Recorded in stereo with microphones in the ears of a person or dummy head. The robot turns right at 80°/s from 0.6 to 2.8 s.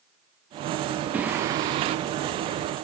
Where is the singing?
170° right, 0.6 m; by 2.0 s 100° right, 0.6 m.